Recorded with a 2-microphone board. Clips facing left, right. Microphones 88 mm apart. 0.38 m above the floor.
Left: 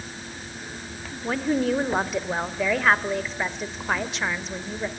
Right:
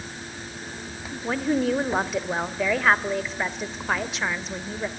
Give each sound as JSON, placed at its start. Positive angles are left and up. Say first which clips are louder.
{"t": 1.2, "sound": "a woman speaking", "louder": "even", "side_deg": 0, "distance_m": 1.2}